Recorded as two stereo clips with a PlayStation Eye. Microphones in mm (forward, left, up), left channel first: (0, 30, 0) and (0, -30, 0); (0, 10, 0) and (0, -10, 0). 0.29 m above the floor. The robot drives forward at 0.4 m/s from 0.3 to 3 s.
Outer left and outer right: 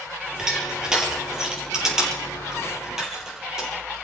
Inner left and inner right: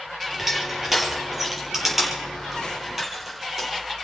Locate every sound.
0.4 s crushing: 10° right (ahead or behind), 4.5 m